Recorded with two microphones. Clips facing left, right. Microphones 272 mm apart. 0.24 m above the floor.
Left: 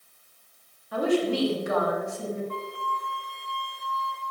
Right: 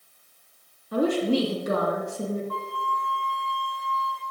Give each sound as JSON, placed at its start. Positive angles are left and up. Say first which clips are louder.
{"t": 0.9, "sound": "a woman speaking", "louder": "right 2 dB", "side_deg": -45, "distance_m": 7.5}
{"t": 2.5, "sound": "a flute", "louder": "right 1 dB", "side_deg": 25, "distance_m": 5.0}